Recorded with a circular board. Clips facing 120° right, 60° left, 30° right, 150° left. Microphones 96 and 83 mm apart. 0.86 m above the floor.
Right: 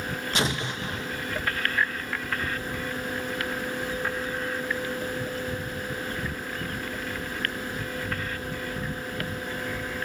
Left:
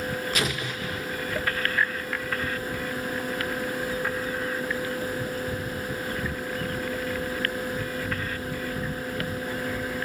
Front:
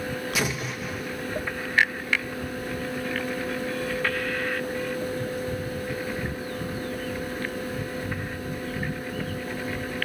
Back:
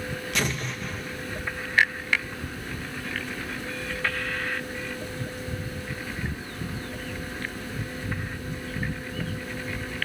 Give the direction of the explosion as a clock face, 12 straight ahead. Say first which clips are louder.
Right 1 dB, back 2 dB; 4 o'clock.